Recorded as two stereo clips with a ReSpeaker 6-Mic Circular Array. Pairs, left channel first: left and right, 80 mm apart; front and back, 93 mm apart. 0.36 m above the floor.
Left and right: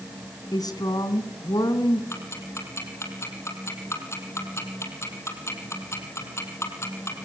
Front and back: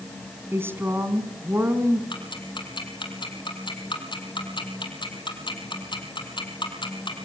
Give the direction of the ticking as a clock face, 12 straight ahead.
11 o'clock.